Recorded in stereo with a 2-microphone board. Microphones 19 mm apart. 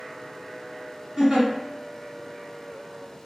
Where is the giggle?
40° right (ahead or behind), 1.8 m.